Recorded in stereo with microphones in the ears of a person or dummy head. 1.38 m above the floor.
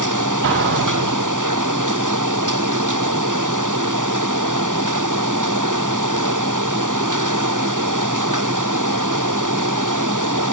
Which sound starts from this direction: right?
An explosion, at 0.4 s.